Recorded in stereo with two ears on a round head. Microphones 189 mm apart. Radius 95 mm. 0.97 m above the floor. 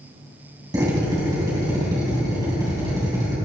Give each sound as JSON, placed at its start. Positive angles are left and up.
{"t": 0.7, "sound": "a drill", "side_deg": -20, "distance_m": 4.0}